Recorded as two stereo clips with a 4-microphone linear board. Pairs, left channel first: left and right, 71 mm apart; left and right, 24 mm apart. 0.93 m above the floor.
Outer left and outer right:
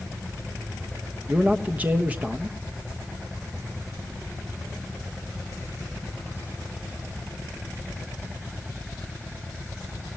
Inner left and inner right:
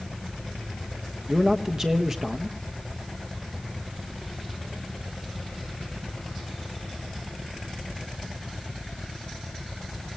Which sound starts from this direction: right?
A man speaking, at 1.3 s.